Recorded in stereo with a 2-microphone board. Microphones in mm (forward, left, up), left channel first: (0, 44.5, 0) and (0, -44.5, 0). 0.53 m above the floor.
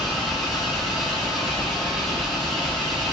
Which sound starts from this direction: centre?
An engine running, at 0.0 s.